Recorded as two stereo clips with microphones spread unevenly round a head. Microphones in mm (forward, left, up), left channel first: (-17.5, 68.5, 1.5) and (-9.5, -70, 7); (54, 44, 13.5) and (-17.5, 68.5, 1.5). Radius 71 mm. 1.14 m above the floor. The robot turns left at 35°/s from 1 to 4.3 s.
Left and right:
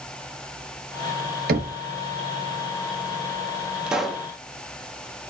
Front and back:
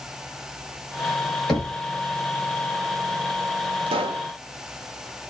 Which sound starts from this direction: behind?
A pop, at 3.9 s.